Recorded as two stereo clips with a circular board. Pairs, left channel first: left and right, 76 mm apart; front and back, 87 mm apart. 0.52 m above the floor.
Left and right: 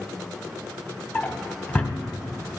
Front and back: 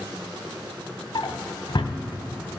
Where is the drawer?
25° left, 0.9 m.